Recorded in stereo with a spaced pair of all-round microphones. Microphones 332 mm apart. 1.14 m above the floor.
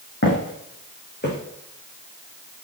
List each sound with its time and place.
0.2 s footsteps: 35° left (ahead or behind), 4.5 m; by 1.4 s 30° left (ahead or behind), 5 m